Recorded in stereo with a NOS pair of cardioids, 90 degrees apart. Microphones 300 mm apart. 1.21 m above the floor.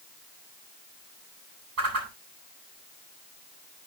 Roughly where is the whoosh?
Ahead right.